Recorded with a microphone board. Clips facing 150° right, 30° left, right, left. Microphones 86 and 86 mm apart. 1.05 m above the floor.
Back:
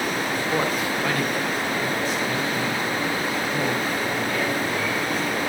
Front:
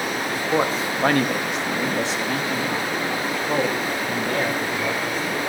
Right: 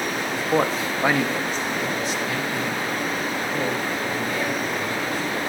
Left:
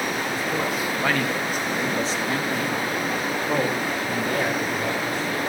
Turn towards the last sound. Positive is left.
turn(degrees=65)